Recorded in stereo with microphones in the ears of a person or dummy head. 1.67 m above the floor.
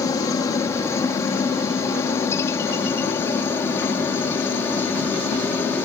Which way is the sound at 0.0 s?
20° left (ahead or behind).